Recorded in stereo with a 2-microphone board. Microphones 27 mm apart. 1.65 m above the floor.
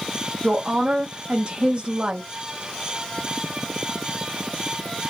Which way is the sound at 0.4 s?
45° right (ahead or behind).